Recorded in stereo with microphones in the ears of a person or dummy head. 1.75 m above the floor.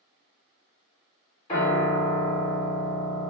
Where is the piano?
25° left (ahead or behind), 1.7 m.